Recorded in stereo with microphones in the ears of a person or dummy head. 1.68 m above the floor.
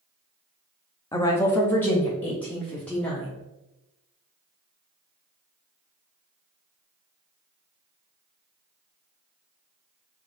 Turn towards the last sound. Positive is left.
turn(degrees=5)  # may be behind; listen again after turning